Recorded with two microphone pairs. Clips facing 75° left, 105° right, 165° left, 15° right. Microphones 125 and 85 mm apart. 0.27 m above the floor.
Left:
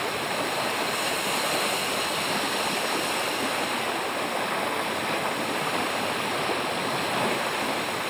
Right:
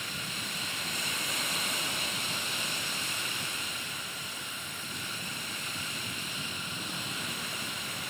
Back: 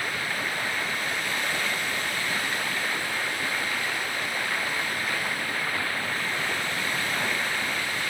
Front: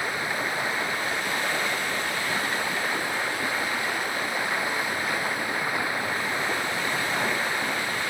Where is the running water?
55° left.